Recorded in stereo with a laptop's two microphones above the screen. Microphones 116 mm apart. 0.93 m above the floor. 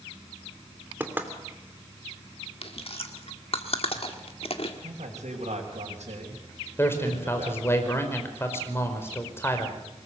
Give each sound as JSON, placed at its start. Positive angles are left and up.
{"t": 1.0, "sound": "knocking", "side_deg": -15, "distance_m": 3.0}
{"t": 2.6, "sound": "chewing", "side_deg": 55, "distance_m": 1.7}
{"t": 4.8, "sound": "a man speaking", "side_deg": -85, "distance_m": 4.5}
{"t": 6.8, "sound": "a man speaking", "side_deg": 20, "distance_m": 4.5}